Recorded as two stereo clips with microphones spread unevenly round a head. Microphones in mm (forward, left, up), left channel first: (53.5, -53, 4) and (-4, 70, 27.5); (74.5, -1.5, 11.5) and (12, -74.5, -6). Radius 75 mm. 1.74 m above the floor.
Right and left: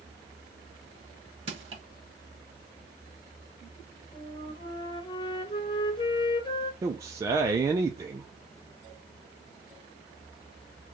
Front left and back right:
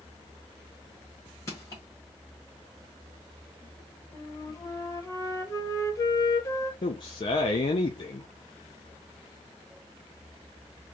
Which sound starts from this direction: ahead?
A flute, at 4.1 s.